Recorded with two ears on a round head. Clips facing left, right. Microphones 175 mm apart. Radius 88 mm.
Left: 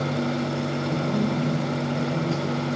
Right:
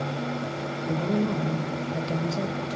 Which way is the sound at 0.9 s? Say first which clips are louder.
Right 1 dB; 40° right (ahead or behind).